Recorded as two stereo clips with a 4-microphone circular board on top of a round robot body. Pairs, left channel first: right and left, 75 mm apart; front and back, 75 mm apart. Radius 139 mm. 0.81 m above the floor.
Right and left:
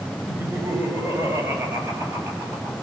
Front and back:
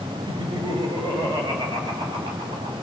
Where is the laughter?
155° left, 4.5 m.